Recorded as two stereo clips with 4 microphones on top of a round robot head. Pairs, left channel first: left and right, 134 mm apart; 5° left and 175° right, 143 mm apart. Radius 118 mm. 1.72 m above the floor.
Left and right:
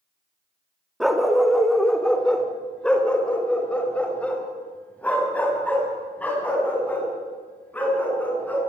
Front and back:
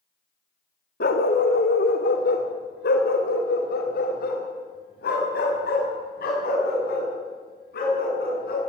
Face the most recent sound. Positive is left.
turn(degrees=10)